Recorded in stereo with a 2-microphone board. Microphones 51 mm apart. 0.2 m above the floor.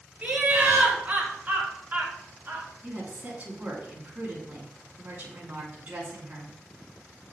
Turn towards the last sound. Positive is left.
turn(degrees=-35)  # may be behind; listen again after turning